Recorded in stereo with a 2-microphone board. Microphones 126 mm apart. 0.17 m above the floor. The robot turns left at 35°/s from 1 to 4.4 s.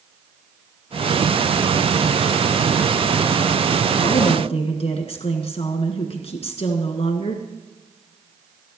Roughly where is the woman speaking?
Left.